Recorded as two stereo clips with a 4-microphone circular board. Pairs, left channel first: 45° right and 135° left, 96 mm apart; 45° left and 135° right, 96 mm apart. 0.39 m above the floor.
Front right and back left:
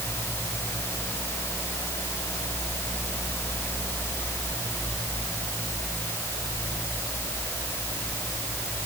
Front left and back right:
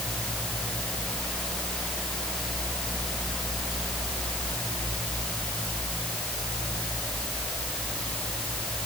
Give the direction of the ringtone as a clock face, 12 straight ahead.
I don't hear a ringtone.